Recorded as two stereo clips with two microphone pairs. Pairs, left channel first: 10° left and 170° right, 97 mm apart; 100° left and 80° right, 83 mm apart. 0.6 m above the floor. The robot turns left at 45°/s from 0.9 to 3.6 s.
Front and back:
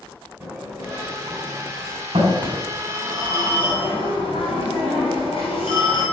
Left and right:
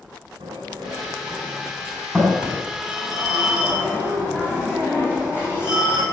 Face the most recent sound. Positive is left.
turn(degrees=35)